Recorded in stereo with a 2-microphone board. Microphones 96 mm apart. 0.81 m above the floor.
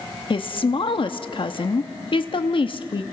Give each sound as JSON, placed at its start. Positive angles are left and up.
{"t": 0.3, "sound": "a woman speaking", "side_deg": 60, "distance_m": 1.1}